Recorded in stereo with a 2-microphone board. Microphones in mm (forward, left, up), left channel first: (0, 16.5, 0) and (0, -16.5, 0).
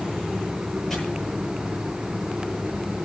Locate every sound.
0.9 s chopping: 5° left (ahead or behind), 9 m